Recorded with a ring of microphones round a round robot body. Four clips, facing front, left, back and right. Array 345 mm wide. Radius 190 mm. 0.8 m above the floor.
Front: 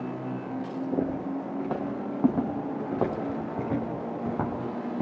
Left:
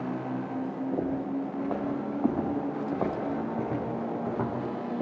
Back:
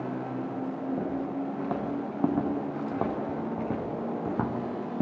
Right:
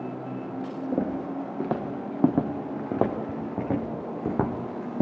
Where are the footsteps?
90° right, 6 m; by 5.0 s 105° right, 2.5 m.